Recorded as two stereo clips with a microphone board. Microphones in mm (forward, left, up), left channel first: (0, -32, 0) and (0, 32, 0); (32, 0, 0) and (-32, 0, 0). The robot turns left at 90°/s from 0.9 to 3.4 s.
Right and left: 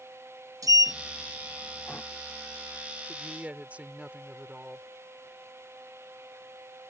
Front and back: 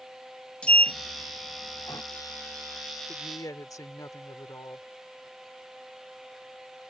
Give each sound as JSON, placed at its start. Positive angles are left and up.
{"t": 0.6, "sound": "a sliding door", "azimuth_deg": 70}
{"t": 3.1, "sound": "a woman speaking", "azimuth_deg": 50}